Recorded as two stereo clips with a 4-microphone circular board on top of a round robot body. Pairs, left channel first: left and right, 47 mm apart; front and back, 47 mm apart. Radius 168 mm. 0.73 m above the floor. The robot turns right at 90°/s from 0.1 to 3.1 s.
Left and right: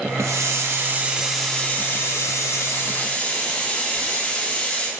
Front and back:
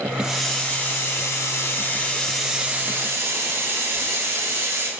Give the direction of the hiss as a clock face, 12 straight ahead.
3 o'clock.